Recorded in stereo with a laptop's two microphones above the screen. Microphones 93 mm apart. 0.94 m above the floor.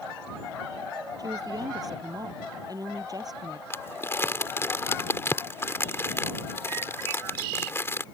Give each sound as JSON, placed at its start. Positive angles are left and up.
{"t": 1.2, "sound": "a woman speaking", "side_deg": -40}
{"t": 3.7, "sound": "crumpling", "side_deg": 25}